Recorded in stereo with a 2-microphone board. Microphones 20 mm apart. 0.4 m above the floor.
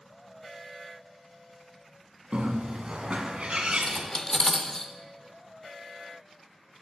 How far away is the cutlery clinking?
About 0.6 m.